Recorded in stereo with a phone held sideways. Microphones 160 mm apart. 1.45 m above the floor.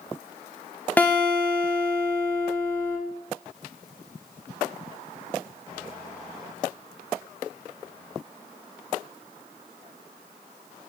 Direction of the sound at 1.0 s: 10° left (ahead or behind).